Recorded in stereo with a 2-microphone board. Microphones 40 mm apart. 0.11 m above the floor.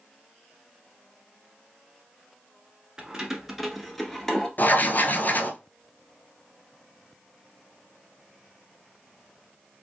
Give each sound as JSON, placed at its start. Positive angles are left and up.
{"t": 3.0, "sound": "keys jangling", "side_deg": -20, "distance_m": 0.8}
{"t": 4.6, "sound": "writing", "side_deg": 50, "distance_m": 0.6}